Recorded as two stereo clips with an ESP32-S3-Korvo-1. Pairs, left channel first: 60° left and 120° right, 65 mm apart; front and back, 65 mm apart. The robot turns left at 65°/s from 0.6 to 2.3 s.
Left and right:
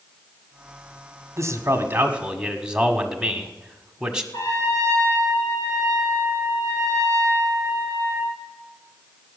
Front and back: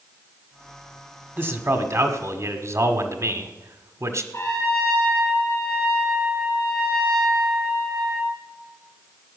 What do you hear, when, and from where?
1.4 s a man speaking: 130° right, 1.5 m; by 4.2 s 165° left, 1.5 m
4.3 s a trumpet: 40° left, 5 m